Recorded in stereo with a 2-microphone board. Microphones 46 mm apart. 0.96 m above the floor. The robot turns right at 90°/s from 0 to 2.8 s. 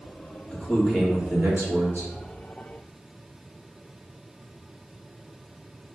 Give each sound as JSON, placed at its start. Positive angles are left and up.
{"t": 0.5, "sound": "a man speaking", "azimuth_deg": 145, "distance_m": 1.2}